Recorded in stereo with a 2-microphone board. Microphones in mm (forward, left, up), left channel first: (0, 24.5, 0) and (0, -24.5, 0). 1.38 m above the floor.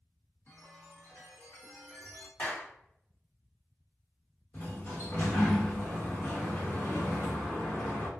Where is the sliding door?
40° left (ahead or behind), 1.3 m.